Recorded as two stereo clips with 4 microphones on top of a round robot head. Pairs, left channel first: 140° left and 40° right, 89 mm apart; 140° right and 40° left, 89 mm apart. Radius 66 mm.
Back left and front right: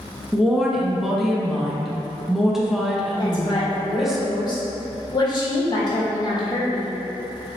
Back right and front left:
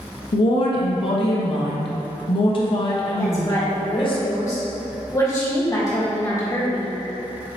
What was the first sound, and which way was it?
A woman speaking, 125° right.